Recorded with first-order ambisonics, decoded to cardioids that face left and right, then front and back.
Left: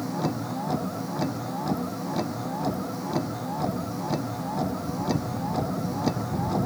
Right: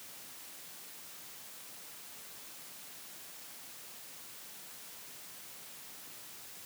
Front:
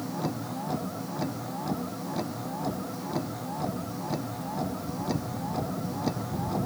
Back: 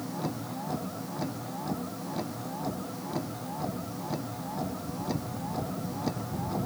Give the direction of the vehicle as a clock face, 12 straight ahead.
9 o'clock.